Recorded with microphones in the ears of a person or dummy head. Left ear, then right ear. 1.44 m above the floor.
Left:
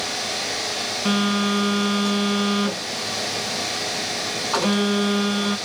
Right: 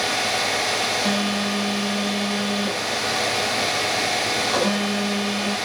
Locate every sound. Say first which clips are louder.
1.1 s a phone buzzing: left 1 dB; 25° left (ahead or behind), 3 m